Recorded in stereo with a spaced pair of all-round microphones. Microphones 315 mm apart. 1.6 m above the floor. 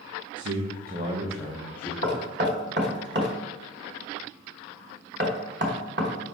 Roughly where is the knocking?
Right.